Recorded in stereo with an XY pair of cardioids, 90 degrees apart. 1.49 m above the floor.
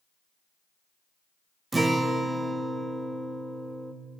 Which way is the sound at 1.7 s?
25° right.